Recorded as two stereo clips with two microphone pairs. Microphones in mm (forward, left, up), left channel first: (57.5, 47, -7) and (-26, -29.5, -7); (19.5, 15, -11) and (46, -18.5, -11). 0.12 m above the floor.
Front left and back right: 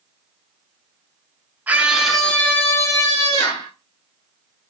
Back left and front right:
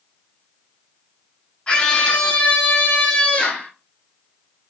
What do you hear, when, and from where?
1.7 s a scream: 165° left, 1.2 m; by 3.7 s 80° left, 1.8 m